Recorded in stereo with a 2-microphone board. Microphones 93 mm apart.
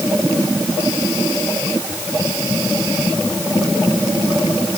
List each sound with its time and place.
Only background noise.